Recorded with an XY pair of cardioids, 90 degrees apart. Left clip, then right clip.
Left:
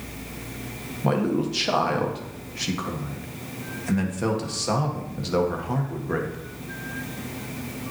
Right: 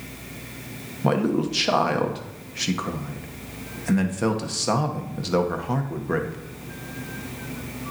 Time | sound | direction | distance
1.0 | a man speaking | 30° right | 1.3 m